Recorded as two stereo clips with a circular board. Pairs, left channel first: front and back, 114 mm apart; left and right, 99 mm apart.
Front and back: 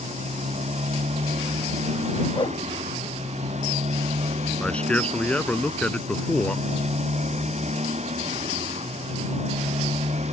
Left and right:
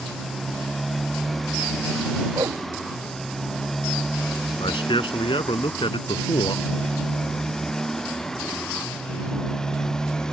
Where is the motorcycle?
Straight behind; by 10.3 s 175° left.